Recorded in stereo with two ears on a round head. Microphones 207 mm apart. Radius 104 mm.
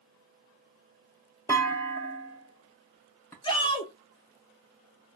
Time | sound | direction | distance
1.5 | a clunk | 10° left (ahead or behind) | 0.6 m
3.4 | a shout | 20° left (ahead or behind) | 0.7 m